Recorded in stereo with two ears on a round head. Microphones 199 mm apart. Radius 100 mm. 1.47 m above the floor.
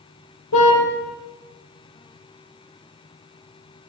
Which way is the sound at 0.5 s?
80° left.